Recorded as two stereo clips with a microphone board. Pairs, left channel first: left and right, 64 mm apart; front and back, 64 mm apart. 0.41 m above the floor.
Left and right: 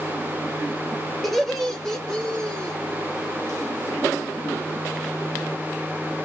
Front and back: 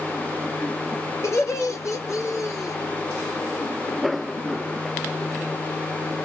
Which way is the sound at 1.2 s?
Straight ahead.